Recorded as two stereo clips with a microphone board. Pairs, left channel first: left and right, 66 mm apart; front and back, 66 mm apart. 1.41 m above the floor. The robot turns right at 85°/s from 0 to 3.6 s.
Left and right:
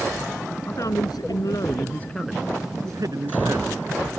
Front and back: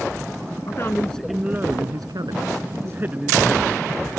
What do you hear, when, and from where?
0.7 s a man speaking: 40° left; by 3.8 s 70° right